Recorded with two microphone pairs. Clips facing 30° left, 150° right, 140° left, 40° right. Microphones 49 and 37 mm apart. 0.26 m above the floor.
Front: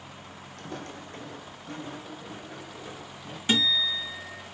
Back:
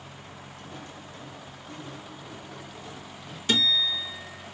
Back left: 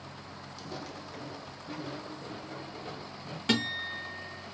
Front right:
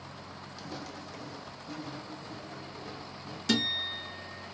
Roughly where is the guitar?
Left.